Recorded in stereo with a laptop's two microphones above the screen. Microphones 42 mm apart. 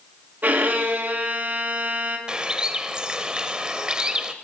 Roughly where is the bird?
Right.